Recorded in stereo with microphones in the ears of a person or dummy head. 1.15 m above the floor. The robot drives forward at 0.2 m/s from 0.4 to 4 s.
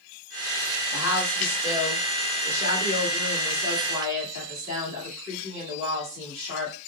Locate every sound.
0.9 s a woman speaking: 60° left (ahead or behind), 1.7 m; by 6.8 s 80° left, 1.6 m